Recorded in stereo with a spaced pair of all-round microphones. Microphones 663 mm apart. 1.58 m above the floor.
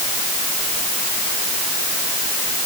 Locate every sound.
Only background noise.